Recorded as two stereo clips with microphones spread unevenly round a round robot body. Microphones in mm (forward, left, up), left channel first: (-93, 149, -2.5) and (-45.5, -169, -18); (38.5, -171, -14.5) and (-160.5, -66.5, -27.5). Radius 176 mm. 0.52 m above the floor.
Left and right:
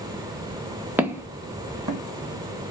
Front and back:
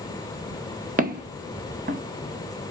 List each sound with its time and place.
1.0 s footsteps: 165° right, 0.6 m